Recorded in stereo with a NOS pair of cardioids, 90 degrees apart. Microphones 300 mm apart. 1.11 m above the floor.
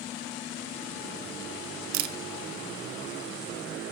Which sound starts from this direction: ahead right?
A camera shutter, at 1.9 s.